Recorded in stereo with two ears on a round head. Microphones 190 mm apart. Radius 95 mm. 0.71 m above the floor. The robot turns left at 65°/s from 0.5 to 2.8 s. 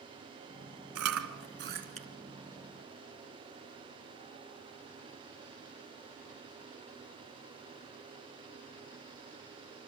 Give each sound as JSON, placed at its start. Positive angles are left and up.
{"t": 0.9, "sound": "chewing", "side_deg": -80, "distance_m": 2.5}